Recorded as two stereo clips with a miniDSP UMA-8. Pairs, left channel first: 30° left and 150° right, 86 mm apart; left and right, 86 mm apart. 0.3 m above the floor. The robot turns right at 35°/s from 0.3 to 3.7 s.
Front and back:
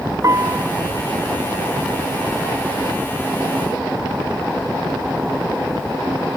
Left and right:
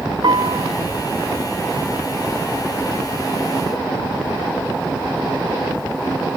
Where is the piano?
105° right; by 0.7 s 90° right.